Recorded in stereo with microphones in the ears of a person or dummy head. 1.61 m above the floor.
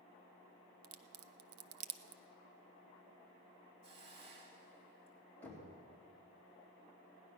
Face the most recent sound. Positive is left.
turn(degrees=10)  # may be behind; listen again after turning